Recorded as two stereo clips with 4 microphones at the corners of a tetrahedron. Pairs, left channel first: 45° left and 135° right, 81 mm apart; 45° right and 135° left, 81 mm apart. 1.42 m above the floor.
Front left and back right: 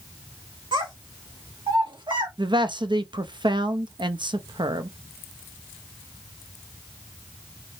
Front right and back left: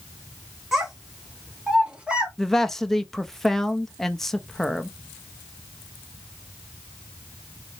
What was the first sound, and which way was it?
A child speaking, 140° right.